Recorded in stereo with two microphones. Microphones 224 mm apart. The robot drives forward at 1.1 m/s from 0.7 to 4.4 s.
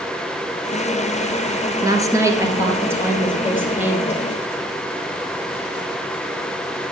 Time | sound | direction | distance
1.8 | a woman speaking | 15° right (ahead or behind) | 2 m